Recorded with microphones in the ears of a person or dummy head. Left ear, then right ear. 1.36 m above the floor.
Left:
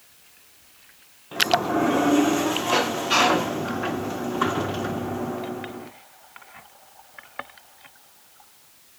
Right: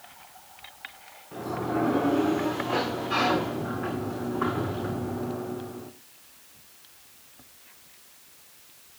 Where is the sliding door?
65° left (ahead or behind), 1.5 m.